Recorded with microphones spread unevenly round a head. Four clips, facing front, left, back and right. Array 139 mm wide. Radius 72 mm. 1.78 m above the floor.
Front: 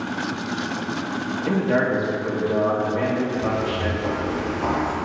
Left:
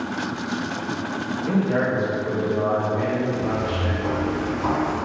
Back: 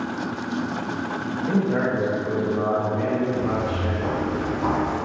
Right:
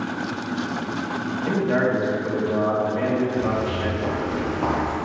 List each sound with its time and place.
1.5 s a man speaking: 25° right, 2.5 m
3.4 s footsteps: 155° right, 2 m; by 4.9 s 90° right, 2.5 m